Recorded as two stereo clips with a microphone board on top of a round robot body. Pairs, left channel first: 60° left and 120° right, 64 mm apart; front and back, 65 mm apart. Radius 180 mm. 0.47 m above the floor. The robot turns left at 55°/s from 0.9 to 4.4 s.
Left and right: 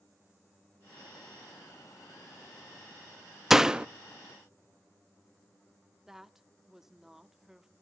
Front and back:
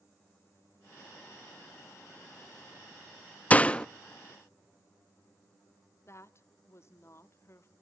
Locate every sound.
3.5 s a door slam: 40° right, 0.7 m; by 3.9 s 60° right, 0.7 m
6.1 s a woman speaking: 40° right, 1.1 m